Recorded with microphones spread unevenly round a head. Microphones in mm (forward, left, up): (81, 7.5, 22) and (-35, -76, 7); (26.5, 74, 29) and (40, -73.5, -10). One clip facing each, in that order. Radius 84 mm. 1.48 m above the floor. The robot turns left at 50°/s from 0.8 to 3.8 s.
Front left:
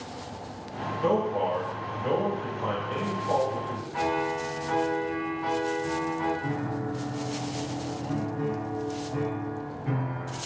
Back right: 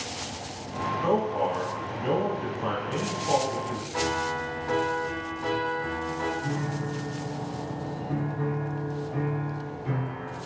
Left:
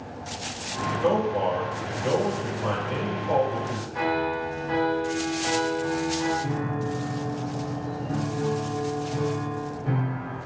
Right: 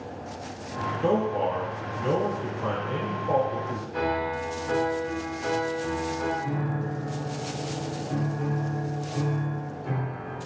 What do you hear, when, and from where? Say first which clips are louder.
1.0 s a man speaking: front left 1 dB, left 1 dB; 25° right, 1.1 m; by 3.8 s 165° right, 1.1 m
3.9 s a piano: front left 2 dB, left 2 dB; 100° right, 0.6 m
6.4 s a piano: front left 1 dB, left 2 dB; 115° left, 1.4 m